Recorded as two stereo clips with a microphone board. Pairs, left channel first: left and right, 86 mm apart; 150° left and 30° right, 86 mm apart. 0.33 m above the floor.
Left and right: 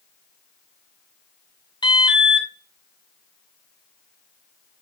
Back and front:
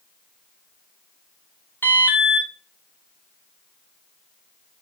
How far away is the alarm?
About 1.6 m.